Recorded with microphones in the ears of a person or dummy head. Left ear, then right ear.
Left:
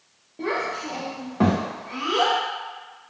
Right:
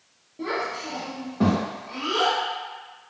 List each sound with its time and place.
0.4 s a child speaking: 20° left (ahead or behind), 0.7 m; by 2.4 s 15° left (ahead or behind), 1.1 m